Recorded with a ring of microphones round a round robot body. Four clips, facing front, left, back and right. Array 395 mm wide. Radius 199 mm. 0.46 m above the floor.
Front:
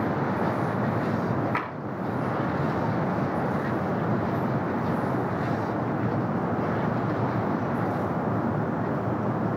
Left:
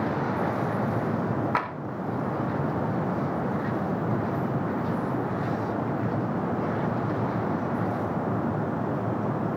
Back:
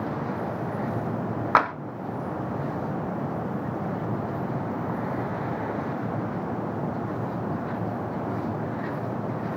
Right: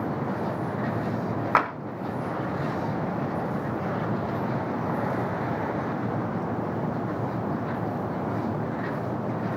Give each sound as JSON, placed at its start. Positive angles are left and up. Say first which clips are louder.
{"t": 1.6, "sound": "tapping", "louder": "right 5 dB, back 9 dB", "azimuth_deg": -155, "distance_m": 1.3}